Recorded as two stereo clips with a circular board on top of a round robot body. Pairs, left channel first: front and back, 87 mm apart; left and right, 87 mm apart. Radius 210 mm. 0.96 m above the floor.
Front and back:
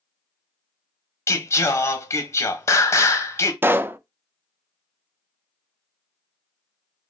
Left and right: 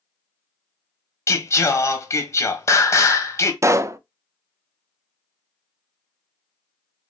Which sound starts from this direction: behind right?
A pop, at 3.6 s.